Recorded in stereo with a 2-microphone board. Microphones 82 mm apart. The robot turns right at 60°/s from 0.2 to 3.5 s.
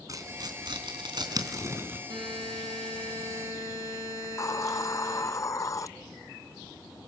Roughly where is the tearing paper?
Right.